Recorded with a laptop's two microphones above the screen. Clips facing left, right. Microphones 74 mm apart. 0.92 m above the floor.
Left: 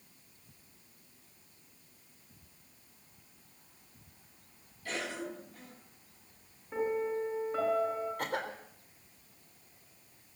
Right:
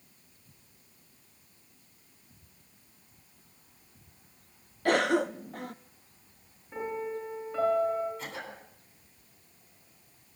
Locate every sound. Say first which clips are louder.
4.8 s a cough: right 13 dB; 70° right (ahead or behind), 0.9 m
6.7 s a piano: left 2 dB; 15° left (ahead or behind), 8.5 m
8.2 s a cough: left 5 dB; 65° left (ahead or behind), 3.5 m